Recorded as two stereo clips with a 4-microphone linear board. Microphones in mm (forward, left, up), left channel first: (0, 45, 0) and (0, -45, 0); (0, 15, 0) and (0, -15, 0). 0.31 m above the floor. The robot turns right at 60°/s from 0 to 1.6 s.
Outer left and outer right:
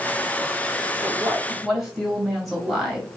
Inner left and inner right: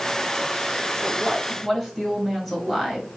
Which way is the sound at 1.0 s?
35° right.